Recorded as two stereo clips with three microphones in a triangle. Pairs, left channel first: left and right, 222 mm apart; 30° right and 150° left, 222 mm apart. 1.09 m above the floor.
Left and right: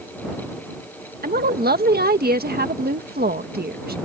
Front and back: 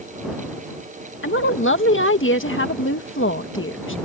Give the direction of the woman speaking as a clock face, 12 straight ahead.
2 o'clock.